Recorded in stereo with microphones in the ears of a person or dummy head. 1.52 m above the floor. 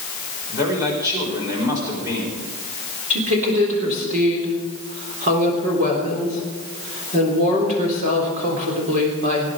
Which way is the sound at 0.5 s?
20° right (ahead or behind).